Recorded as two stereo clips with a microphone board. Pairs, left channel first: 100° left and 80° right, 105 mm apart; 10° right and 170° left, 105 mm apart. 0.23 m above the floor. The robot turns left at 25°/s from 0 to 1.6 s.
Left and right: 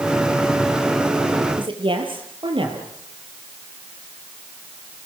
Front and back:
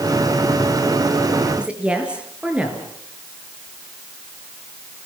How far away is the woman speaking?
About 5 m.